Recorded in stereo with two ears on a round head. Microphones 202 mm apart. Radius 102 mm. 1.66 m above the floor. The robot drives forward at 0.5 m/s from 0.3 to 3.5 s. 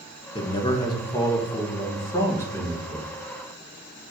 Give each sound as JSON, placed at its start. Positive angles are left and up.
{"t": 0.3, "sound": "a man speaking", "side_deg": 25, "distance_m": 1.4}